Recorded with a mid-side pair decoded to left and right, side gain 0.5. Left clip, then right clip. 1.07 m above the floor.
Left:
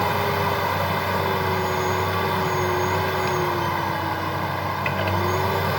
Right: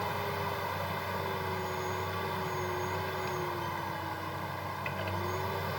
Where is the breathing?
I don't hear breathing.